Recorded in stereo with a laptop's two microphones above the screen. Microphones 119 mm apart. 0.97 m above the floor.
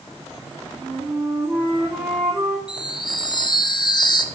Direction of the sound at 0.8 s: 10° right (ahead or behind).